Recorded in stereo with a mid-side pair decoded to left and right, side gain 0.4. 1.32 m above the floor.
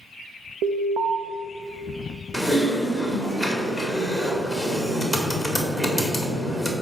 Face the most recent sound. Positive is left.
turn(degrees=-5)